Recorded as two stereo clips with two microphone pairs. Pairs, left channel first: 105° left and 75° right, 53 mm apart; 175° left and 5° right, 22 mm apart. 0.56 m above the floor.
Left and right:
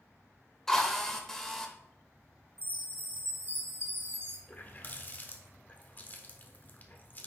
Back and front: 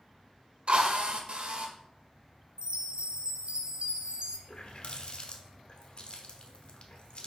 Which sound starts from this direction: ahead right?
A chime, at 2.6 s.